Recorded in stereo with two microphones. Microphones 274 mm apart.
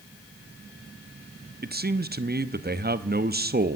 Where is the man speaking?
35° right (ahead or behind), 0.9 m.